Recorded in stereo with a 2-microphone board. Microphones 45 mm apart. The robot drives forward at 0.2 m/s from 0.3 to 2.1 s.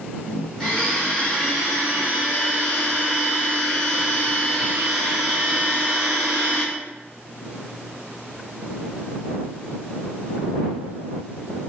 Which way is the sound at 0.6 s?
5° left (ahead or behind).